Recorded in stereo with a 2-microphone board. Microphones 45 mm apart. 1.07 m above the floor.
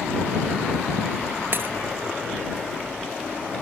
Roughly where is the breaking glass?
Right.